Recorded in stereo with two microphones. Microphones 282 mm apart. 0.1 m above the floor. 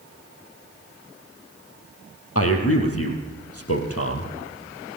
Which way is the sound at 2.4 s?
55° left (ahead or behind).